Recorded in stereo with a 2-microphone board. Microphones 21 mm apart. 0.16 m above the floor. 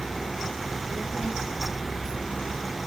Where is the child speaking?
60° right (ahead or behind), 3 m.